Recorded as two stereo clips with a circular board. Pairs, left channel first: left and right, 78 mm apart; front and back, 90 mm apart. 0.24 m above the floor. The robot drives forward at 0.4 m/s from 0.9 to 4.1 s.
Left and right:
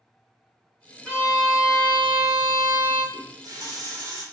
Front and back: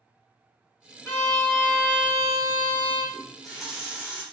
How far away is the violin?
About 1.4 m.